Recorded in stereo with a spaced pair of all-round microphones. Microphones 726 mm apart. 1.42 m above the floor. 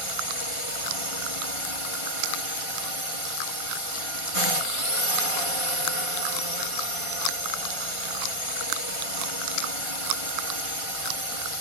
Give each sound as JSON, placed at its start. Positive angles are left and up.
{"t": 0.0, "sound": "a drone", "side_deg": 45}